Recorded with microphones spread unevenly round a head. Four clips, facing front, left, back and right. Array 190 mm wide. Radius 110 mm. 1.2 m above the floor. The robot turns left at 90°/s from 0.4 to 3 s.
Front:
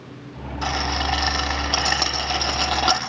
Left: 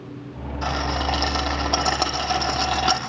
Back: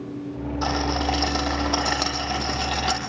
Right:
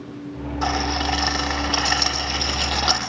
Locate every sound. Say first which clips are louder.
0.6 s a rattle: right 1 dB, even; 160° right, 7.5 m; by 3.0 s 15° right, 7.5 m